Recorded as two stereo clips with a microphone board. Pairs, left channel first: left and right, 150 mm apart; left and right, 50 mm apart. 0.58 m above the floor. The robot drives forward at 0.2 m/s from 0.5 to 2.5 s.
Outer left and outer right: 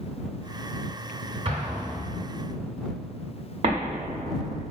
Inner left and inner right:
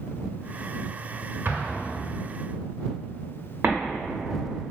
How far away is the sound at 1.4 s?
About 0.8 m.